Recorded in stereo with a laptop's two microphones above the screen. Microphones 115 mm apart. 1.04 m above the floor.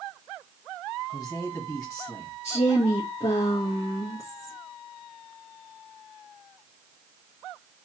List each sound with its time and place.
1.1 s a man speaking: 30° left (ahead or behind), 1.3 m
2.4 s a woman speaking: 75° left (ahead or behind), 1.4 m